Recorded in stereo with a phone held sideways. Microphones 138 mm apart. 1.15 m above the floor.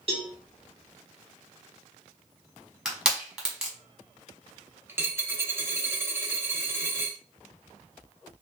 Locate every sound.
0.1 s a cowbell: 40° right (ahead or behind), 0.9 m
2.9 s crushing: 5° right (ahead or behind), 0.9 m
4.9 s a dropped coin: 15° right (ahead or behind), 0.7 m